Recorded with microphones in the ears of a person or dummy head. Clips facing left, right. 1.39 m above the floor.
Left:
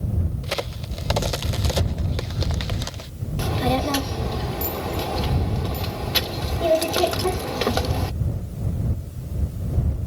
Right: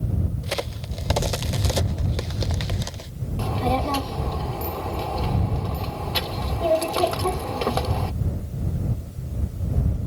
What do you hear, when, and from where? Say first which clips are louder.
0.4 s a crack: even; centre (ahead or behind)
3.4 s a child speaking: left 2 dB; 25° left (ahead or behind)